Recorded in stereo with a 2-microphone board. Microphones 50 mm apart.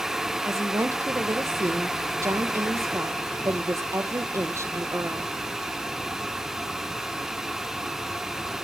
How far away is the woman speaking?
About 1.1 m.